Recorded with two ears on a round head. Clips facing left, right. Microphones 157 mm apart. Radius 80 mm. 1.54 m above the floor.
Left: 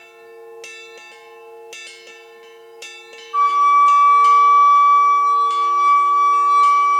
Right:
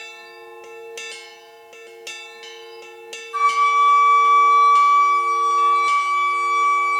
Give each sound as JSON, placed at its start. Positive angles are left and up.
{"t": 3.3, "sound": "a flute", "side_deg": -25, "distance_m": 1.9}